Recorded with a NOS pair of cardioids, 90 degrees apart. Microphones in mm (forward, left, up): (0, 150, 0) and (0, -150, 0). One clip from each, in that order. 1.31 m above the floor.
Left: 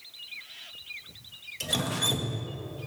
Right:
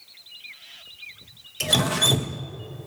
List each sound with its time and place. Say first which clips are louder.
1.6 s dripping: right 8 dB; 40° right, 1.2 m